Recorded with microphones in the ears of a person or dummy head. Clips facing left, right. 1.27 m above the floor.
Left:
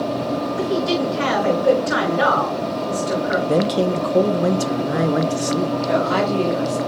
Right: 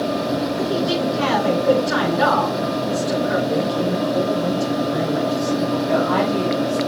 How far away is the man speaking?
About 0.8 m.